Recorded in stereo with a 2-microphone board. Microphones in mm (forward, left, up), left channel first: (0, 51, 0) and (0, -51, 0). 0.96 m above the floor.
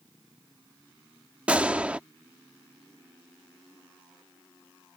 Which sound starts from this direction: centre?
A gunshot, at 1.5 s.